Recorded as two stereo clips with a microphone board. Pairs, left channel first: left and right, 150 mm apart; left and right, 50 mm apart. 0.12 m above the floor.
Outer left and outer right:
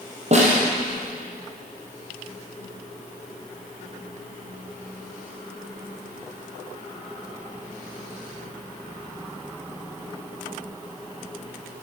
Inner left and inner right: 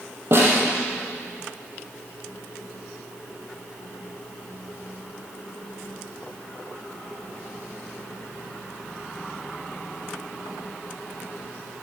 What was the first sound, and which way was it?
A snare drum, 45° right (ahead or behind).